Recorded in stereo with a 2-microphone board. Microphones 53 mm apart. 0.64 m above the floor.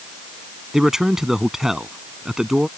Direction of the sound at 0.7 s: 10° right (ahead or behind).